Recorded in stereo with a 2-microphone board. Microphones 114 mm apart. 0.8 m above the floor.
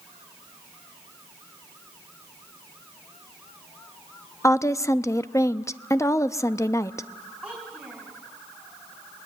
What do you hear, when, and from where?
4.4 s a woman speaking: 25° left (ahead or behind), 0.7 m
7.4 s a child speaking: 10° right (ahead or behind), 4.5 m